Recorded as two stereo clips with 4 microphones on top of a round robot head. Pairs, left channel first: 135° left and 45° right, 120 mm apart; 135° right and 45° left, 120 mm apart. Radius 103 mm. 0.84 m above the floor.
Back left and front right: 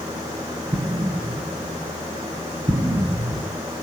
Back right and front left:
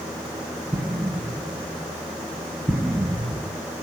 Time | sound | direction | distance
0.7 | an explosion | 25° right | 0.7 m